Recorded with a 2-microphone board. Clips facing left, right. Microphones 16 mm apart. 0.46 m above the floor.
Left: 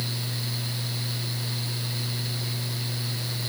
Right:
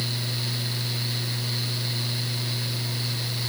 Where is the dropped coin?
I don't hear a dropped coin.